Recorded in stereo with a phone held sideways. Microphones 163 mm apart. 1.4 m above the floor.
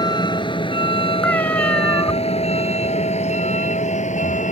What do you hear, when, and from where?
0.0 s a vehicle: 25° left (ahead or behind); by 4.5 s 50° left (ahead or behind)
1.2 s a cat meowing: 10° left (ahead or behind)